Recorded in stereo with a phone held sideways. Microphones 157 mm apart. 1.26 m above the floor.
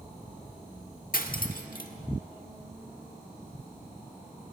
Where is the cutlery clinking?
65° left (ahead or behind), 1.5 m.